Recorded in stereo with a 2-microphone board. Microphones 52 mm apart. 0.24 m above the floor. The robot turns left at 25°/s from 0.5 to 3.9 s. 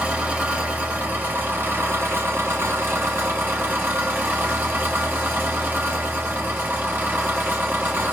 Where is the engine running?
35° right, 1.0 m; by 8.2 s 120° right, 1.0 m.